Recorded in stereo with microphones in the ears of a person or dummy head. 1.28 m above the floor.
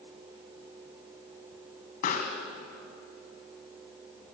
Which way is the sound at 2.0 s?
55° left (ahead or behind).